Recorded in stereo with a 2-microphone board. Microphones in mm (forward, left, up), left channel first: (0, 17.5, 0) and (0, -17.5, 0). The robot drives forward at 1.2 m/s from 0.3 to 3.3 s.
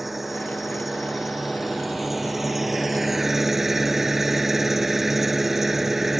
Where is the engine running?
Centre (ahead or behind); by 6.2 s 5° right (ahead or behind).